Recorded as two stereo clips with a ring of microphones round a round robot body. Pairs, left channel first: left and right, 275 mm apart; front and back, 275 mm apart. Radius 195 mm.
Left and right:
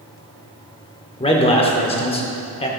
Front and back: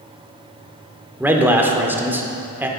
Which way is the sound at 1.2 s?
110° left.